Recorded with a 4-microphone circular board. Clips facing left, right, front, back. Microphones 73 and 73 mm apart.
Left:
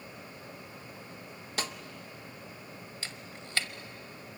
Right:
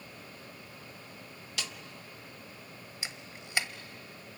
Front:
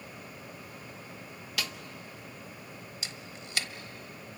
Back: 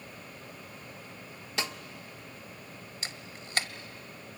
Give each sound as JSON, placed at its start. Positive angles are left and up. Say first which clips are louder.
{"t": 1.6, "sound": "a snare drum", "louder": "left 5 dB, back 2 dB", "azimuth_deg": 125, "distance_m": 0.7}
{"t": 3.0, "sound": "a camera shutter", "louder": "left 1 dB, even", "azimuth_deg": -160, "distance_m": 0.9}